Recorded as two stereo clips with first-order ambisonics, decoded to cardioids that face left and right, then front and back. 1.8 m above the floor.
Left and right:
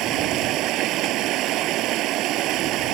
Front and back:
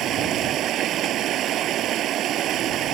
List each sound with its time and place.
0.0 s running water: 130° right